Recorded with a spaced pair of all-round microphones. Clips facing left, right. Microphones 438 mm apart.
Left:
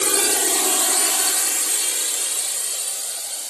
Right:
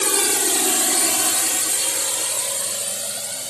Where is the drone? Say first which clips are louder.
Even; 5° right (ahead or behind); by 3.5 s 70° right (ahead or behind).